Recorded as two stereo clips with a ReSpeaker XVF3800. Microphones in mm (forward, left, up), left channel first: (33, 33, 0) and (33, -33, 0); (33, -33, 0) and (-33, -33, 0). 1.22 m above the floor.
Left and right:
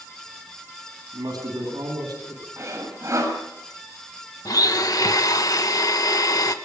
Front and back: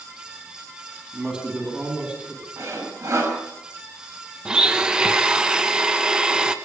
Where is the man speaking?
110° right, 9.5 m.